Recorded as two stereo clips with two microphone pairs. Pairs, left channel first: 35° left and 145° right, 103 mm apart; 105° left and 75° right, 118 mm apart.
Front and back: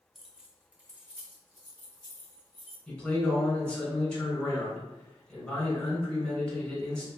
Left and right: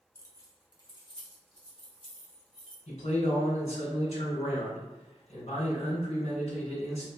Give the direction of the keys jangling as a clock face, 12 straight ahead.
8 o'clock.